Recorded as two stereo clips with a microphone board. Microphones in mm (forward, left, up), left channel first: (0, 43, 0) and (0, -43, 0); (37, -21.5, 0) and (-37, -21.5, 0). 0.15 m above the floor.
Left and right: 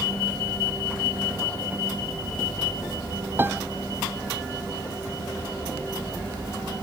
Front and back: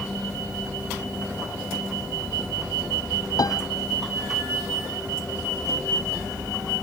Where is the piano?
25° right.